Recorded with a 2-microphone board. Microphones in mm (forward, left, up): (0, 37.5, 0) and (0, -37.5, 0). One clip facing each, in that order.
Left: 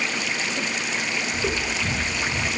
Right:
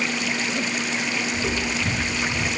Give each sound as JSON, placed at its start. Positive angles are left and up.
{"t": 1.3, "sound": "footsteps", "side_deg": 50, "distance_m": 4.0}